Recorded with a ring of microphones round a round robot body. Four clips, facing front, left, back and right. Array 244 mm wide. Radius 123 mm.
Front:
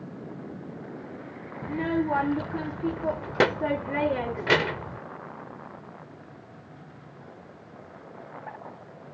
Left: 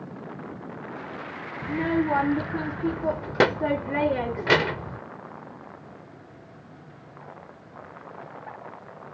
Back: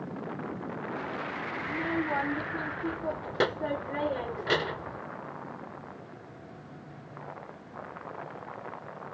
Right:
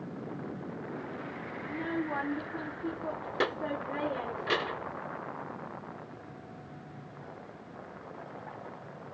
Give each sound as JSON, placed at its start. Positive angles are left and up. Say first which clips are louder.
{"t": 1.6, "sound": "a child speaking", "louder": "left 10 dB, front 6 dB", "azimuth_deg": 65}